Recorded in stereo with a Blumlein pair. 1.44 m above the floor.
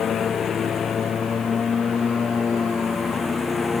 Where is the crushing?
No crushing in this recording.